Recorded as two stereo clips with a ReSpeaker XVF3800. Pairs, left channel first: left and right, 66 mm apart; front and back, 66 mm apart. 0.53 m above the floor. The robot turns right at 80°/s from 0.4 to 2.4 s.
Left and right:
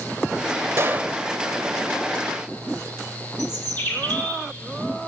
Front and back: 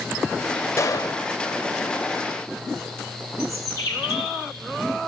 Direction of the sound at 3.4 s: 35° left.